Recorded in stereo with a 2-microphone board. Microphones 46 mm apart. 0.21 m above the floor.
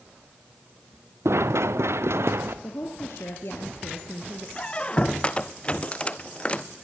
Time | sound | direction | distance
1.2 | running footsteps | 75° right (ahead or behind) | 0.8 m
2.6 | a woman speaking | 65° left (ahead or behind) | 3 m
4.6 | a squeak | 30° left (ahead or behind) | 0.8 m